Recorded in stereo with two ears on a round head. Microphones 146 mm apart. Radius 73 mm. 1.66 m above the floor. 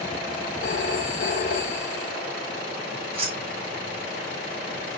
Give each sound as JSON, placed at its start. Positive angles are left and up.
{"t": 0.6, "sound": "a phone ringing", "side_deg": 55, "distance_m": 3.0}
{"t": 3.1, "sound": "keys jangling", "side_deg": -40, "distance_m": 5.5}